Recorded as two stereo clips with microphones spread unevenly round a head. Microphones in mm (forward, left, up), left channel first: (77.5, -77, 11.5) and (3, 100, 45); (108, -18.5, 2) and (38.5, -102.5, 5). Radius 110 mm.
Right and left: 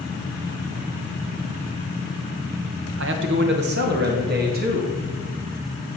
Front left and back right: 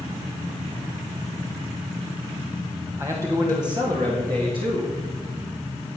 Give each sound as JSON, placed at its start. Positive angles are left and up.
{"t": 3.0, "sound": "a man speaking", "azimuth_deg": 150, "distance_m": 1.3}